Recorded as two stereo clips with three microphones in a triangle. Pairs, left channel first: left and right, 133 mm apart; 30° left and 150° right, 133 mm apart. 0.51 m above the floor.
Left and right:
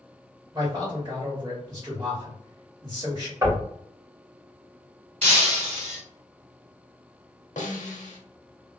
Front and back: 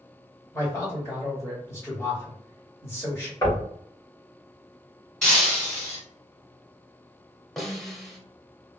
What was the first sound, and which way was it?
A man speaking, 35° right.